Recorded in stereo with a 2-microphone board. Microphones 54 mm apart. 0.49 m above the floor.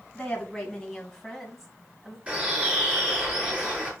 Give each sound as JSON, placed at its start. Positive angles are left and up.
{"t": 0.1, "sound": "a woman speaking", "side_deg": 20, "distance_m": 3.5}
{"t": 2.3, "sound": "a bird", "side_deg": -20, "distance_m": 6.0}